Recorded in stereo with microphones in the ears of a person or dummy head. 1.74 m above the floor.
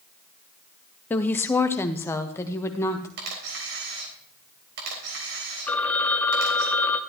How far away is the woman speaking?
About 0.6 m.